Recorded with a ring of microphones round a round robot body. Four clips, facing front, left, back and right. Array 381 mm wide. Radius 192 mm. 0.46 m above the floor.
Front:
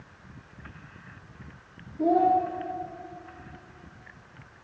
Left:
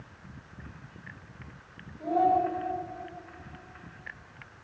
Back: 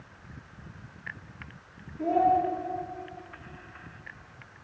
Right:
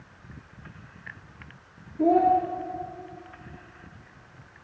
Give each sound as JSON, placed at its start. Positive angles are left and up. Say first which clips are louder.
{"t": 2.0, "sound": "a child speaking", "louder": "right 5 dB, front 2 dB", "azimuth_deg": -75, "distance_m": 5.5}